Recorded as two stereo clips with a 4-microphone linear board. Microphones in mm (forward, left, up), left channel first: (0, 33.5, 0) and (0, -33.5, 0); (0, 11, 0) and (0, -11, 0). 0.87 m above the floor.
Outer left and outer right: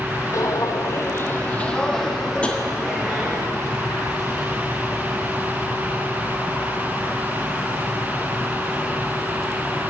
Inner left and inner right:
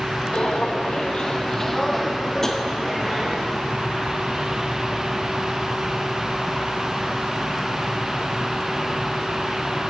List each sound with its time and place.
0.3 s footsteps: 55° left (ahead or behind), 1.7 m; by 3.4 s 15° right (ahead or behind), 3 m
2.4 s tapping: 20° left (ahead or behind), 1.6 m